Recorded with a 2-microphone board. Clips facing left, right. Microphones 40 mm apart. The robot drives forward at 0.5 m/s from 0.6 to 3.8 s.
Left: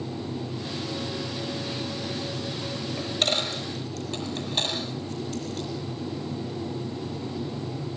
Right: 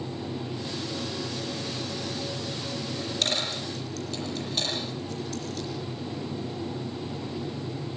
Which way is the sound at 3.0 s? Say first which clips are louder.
Left 3 dB; 20° left (ahead or behind).